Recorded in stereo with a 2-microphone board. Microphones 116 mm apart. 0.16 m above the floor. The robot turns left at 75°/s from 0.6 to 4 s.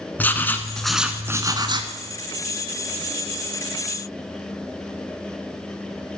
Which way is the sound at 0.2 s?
20° left.